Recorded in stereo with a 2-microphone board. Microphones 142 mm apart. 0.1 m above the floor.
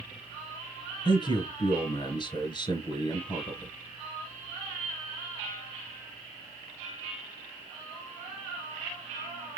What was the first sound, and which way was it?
A man speaking, 30° left (ahead or behind).